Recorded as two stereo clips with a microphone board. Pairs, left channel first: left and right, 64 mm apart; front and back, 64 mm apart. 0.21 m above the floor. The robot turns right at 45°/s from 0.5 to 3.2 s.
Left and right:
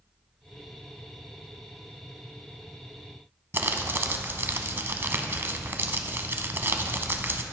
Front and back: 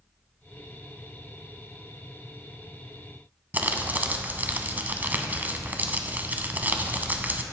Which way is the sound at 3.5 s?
125° right.